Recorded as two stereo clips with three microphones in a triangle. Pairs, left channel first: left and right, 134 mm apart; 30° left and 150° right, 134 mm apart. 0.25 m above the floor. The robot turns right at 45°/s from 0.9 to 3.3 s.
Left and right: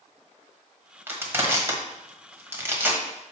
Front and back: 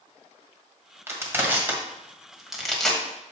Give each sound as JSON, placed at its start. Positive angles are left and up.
{"t": 1.1, "sound": "crushing", "azimuth_deg": -130, "distance_m": 1.5}